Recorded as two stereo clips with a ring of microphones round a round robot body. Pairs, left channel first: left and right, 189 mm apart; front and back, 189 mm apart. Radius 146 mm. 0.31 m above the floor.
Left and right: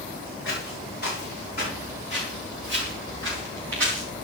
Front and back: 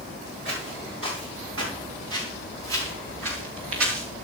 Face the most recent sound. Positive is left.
turn(degrees=180)